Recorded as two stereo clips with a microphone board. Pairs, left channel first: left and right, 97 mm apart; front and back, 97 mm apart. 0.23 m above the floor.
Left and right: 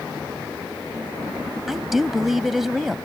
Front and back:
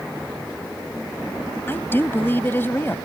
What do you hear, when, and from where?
1.7 s a woman speaking: 5° right